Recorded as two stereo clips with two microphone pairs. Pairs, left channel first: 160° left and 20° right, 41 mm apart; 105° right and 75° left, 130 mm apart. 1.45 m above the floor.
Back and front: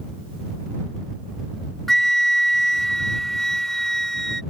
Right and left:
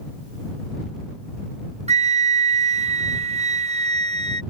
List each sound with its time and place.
1.9 s a flute: 75° left